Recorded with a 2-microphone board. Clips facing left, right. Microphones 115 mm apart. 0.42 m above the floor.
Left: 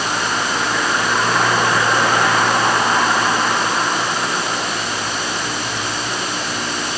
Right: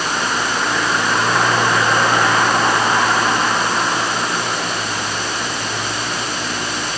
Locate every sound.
Only background noise.